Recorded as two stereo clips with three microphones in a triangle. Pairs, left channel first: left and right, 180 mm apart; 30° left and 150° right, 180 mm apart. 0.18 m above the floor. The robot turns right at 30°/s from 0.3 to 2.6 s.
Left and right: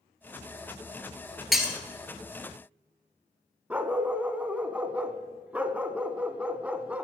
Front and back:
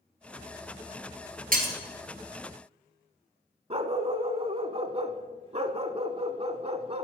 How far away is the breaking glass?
About 1.4 m.